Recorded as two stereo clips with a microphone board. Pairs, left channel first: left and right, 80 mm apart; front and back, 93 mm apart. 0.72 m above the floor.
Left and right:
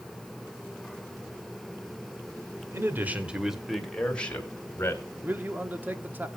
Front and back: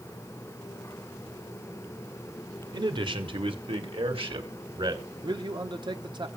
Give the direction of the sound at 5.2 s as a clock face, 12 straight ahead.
5 o'clock.